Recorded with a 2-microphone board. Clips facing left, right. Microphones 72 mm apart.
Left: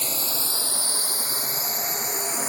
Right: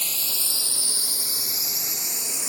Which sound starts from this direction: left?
A drone, at 0.0 s.